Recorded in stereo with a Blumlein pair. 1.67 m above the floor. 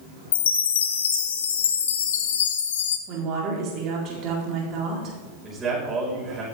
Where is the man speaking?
20° right, 5.5 m.